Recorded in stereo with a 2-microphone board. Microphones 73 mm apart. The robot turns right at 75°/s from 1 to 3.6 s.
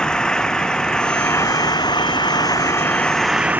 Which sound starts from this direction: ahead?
An engine running, at 0.0 s.